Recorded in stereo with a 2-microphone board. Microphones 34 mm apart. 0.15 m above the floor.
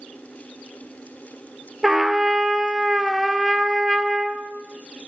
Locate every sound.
1.8 s a trumpet: 5° right (ahead or behind), 0.6 m